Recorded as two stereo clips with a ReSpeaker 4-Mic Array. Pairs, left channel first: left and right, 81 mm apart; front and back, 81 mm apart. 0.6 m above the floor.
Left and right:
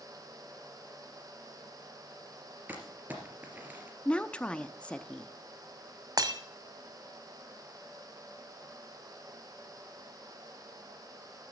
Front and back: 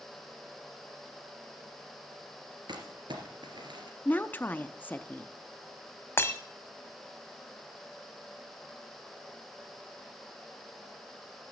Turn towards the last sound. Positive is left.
turn(degrees=-60)